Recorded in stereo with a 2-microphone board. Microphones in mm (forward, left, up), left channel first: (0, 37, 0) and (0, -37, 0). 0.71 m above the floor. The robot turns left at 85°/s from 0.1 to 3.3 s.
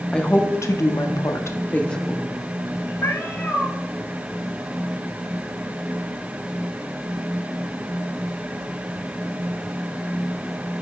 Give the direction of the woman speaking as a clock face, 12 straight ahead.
6 o'clock.